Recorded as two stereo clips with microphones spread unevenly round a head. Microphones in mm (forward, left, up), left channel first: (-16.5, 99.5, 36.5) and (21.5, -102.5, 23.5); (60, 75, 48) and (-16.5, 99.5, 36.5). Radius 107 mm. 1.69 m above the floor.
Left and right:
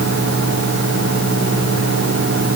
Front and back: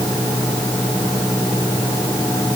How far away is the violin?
I don't hear a violin.